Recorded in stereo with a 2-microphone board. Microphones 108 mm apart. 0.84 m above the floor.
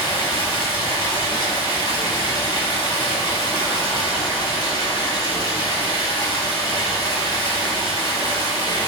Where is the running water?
45° left (ahead or behind), 0.9 m.